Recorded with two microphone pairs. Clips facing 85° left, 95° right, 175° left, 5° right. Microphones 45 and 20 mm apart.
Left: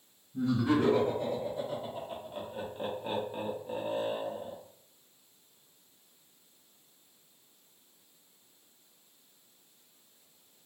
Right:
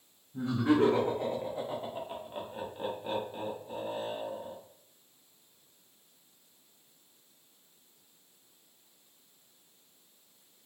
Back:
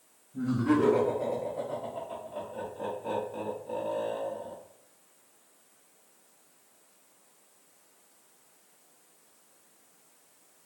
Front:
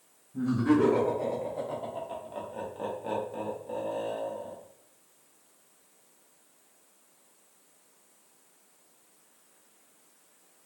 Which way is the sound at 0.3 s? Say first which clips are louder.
Right 1 dB, front 1 dB; 65° right.